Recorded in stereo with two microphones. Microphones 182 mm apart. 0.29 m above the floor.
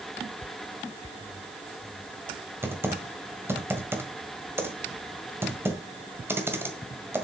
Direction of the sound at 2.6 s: 10° right (ahead or behind).